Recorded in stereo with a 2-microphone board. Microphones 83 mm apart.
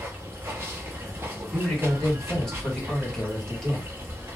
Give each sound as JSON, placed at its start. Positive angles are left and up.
{"t": 0.0, "sound": "running water", "side_deg": -25, "distance_m": 0.8}
{"t": 1.5, "sound": "a man speaking", "side_deg": 5, "distance_m": 1.5}